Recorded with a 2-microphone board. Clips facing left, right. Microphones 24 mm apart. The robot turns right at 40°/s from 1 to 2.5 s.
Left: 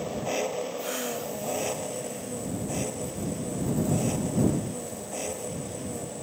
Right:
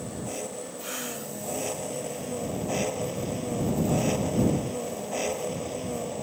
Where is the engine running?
140° left; by 6.2 s 160° right.